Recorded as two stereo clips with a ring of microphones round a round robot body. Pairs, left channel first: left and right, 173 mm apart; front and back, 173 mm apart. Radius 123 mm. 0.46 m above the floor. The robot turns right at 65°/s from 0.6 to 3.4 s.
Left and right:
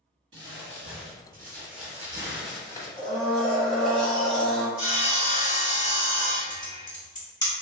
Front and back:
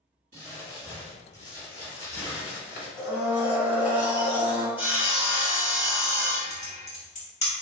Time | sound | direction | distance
0.3 | crumpling | 125° right | 1.2 m
3.0 | a blender | 85° left | 1.7 m
4.8 | sawing | 105° left | 1.4 m
6.5 | typing on a keyboard | 35° left | 1.7 m